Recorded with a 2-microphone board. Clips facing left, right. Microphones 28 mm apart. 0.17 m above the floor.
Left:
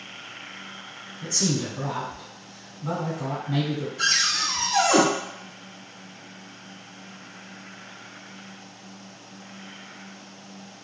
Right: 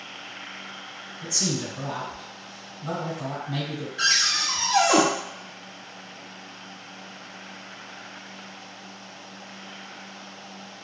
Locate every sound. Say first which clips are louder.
1.2 s a man speaking: left 2 dB; 5° left (ahead or behind), 1.0 m
4.0 s a cupboard door: right 1 dB; 60° right (ahead or behind), 0.9 m